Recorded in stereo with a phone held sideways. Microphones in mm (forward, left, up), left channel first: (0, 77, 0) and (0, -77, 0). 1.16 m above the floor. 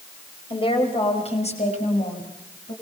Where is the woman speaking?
35° left (ahead or behind), 5 m; by 2.7 s 55° left (ahead or behind), 7 m.